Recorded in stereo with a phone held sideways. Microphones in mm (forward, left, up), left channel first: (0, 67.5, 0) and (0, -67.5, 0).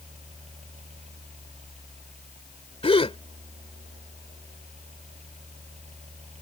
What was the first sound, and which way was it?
A fan, 60° right (ahead or behind).